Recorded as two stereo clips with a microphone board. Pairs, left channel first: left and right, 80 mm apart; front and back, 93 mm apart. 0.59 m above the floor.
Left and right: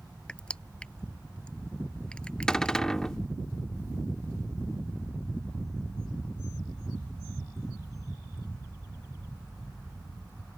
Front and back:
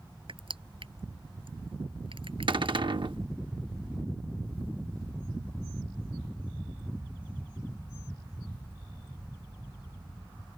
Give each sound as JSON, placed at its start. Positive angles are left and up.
{"t": 0.3, "sound": "crushing", "azimuth_deg": 165}
{"t": 2.5, "sound": "a cupboard door", "azimuth_deg": 170}